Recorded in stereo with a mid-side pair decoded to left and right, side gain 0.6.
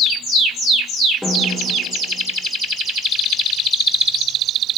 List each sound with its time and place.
1.2 s a snare drum: 5° left, 7.5 m